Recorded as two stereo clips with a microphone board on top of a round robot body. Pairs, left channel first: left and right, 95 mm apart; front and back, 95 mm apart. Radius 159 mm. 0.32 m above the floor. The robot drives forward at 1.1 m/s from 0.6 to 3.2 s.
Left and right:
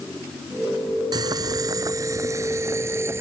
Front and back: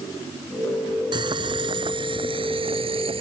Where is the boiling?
140° right; by 3.2 s 155° right.